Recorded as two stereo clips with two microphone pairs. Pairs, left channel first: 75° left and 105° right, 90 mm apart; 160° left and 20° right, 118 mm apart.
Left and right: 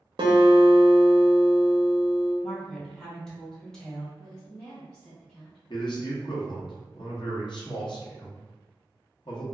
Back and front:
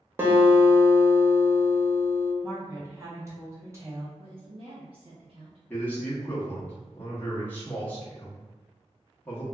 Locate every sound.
0.2 s a guitar: 90° right, 0.6 m
2.4 s a woman speaking: 5° right, 1.0 m
4.2 s a woman speaking: 10° right, 0.9 m
5.7 s a man speaking: 85° left, 0.7 m